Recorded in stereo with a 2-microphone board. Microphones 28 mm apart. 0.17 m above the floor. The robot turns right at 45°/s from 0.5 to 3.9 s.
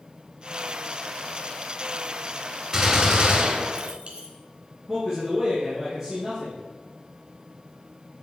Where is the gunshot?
165° right, 2.5 m; by 4.3 s 115° right, 2.5 m.